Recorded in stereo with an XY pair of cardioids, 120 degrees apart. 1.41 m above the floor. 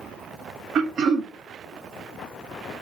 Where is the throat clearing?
55° right, 0.7 m.